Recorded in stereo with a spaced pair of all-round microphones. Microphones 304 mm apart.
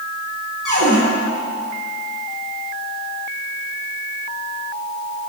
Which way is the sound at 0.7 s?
75° right (ahead or behind).